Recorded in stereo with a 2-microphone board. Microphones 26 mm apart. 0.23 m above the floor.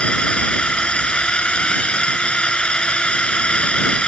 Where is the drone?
40° left (ahead or behind).